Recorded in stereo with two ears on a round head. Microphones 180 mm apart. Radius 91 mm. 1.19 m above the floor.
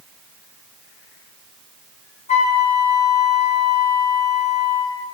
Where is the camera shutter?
No camera shutter in this recording.